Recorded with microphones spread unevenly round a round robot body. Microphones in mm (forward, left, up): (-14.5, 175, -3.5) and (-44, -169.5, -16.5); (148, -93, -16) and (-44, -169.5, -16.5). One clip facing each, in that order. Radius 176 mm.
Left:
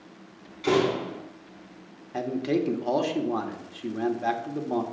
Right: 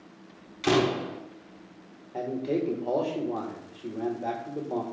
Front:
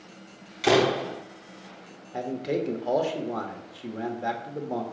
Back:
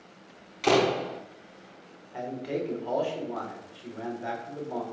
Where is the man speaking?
45° left, 1.2 m.